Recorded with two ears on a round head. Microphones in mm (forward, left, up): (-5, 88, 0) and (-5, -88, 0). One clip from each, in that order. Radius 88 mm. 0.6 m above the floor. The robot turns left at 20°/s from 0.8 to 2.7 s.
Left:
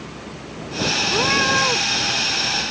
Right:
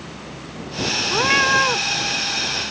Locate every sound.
1.1 s a cat meowing: 85° right; by 1.8 s 70° right (ahead or behind)